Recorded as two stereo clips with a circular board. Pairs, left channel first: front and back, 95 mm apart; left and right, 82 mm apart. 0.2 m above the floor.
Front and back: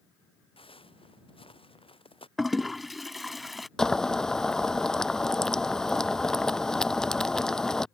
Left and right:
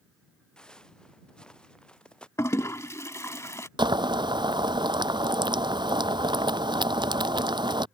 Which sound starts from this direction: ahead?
Footsteps, at 0.6 s.